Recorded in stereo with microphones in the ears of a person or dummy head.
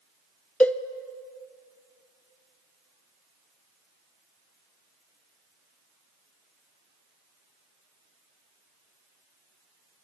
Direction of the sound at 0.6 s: 10° left (ahead or behind).